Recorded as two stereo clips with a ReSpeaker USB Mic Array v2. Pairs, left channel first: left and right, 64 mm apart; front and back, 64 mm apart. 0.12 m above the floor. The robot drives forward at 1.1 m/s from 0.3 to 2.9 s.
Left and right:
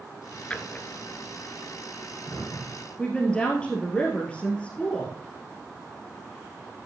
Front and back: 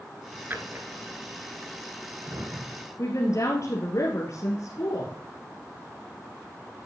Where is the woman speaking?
20° left, 2 m.